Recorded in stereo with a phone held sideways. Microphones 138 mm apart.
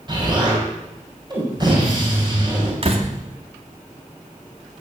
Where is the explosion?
30° right (ahead or behind), 6.5 m.